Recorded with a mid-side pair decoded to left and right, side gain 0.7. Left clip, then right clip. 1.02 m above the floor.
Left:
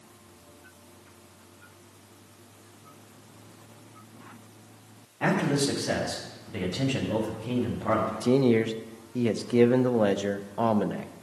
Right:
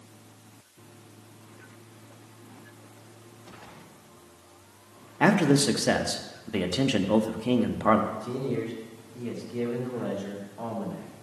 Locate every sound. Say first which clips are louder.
5.2 s a man speaking: right 4 dB; 45° right, 1.3 m
8.1 s a man speaking: left 8 dB; 50° left, 0.8 m